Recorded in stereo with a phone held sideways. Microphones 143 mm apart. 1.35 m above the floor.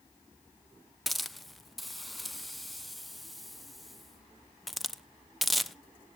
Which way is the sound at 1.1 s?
Centre (ahead or behind).